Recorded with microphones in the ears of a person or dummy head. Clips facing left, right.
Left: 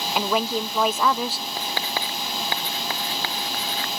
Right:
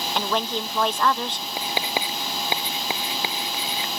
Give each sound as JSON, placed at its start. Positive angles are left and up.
{"t": 0.1, "sound": "a woman speaking", "side_deg": 5}
{"t": 1.6, "sound": "writing", "side_deg": -15}